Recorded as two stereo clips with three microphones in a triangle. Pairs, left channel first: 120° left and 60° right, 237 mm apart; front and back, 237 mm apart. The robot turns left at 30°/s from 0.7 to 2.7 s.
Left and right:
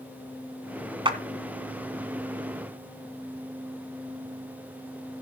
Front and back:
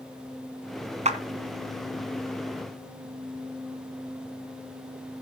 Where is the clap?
125° right, 1.7 m; by 1.2 s 130° right, 1.7 m.